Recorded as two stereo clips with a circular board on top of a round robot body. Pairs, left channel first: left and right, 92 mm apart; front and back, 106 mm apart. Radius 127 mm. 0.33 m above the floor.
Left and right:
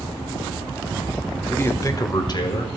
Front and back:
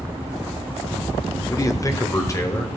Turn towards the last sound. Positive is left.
turn(degrees=60)